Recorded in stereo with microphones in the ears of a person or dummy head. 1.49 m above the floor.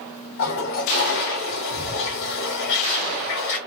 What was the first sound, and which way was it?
A toilet flushing, 50° left (ahead or behind).